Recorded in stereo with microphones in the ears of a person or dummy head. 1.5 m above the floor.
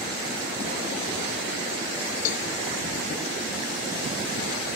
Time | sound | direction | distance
2.2 | a cowbell | 50° left (ahead or behind) | 0.7 m